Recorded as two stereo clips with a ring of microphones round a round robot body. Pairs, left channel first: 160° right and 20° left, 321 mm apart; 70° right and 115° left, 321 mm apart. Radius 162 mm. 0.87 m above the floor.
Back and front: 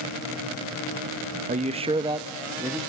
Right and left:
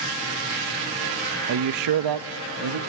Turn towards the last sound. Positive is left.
turn(degrees=105)